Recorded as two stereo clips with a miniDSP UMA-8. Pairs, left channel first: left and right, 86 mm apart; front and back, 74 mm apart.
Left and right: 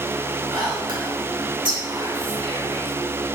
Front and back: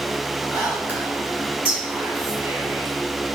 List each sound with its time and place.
0.5 s whispering: 115° right, 3.5 m